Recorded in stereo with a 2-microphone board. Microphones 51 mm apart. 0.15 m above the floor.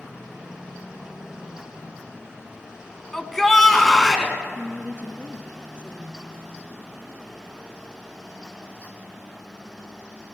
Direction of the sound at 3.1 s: 10° left (ahead or behind).